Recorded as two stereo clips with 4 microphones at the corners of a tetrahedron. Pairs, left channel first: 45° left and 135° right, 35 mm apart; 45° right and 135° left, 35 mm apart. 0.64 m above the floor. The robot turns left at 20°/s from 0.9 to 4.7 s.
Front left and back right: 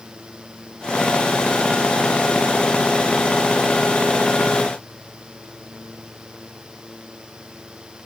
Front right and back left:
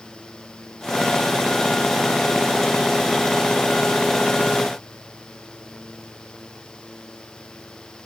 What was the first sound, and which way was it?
Only background noise.